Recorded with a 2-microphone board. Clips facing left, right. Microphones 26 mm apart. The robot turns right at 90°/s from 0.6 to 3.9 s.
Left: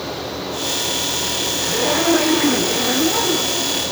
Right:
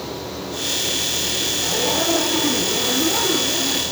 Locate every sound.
1.6 s a zipper: 25° left, 2 m; by 3.8 s 130° right, 2 m